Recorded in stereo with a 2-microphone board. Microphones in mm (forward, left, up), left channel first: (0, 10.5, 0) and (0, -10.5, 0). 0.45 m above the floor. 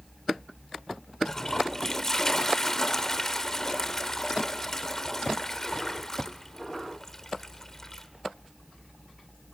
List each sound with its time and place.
1.2 s a toilet flushing: 15° left (ahead or behind), 1.6 m